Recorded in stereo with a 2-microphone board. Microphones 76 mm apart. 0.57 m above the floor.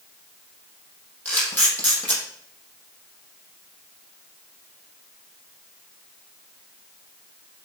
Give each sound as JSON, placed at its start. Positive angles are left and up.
{"t": 1.2, "sound": "a camera shutter", "side_deg": 15, "distance_m": 5.5}